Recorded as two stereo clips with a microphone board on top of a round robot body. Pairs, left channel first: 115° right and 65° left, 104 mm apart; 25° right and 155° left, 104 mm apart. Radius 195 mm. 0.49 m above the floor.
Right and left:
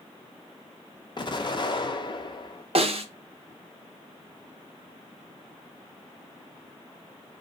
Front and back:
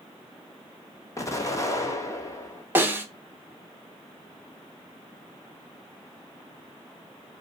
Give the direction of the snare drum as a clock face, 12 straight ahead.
9 o'clock.